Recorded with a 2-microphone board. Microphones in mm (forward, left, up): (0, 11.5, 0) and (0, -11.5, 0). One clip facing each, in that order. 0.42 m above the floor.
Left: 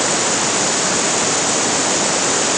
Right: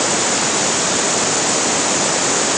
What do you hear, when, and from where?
Only background noise.